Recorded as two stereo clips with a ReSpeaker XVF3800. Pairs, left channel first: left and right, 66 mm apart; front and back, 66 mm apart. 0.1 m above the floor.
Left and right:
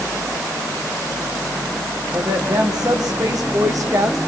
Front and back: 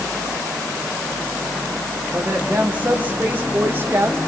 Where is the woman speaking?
110° right, 7.5 m; by 4.2 s 125° right, 4.5 m.